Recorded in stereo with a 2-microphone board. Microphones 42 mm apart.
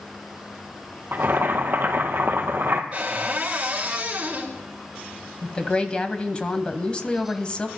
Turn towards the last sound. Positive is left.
turn(degrees=25)  # may be behind; listen again after turning